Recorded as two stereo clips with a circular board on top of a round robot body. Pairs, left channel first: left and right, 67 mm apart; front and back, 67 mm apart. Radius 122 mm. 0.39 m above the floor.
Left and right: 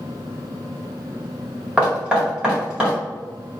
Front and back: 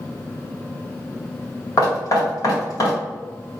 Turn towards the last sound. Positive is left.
turn(degrees=-15)